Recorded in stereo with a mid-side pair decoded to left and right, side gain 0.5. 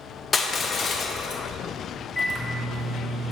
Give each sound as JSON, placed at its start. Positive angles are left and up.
{"t": 0.3, "sound": "crushing", "azimuth_deg": 35, "distance_m": 0.8}
{"t": 2.1, "sound": "a microwave", "azimuth_deg": 5, "distance_m": 1.5}